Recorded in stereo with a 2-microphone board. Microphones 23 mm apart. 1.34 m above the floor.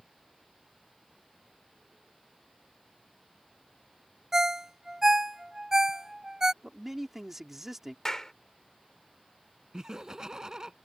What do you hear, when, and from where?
4.3 s a ringtone: 25° right (ahead or behind)
6.6 s a man speaking: 15° right (ahead or behind)
8.1 s a clap: 25° left (ahead or behind)
9.7 s laughter: 30° right (ahead or behind)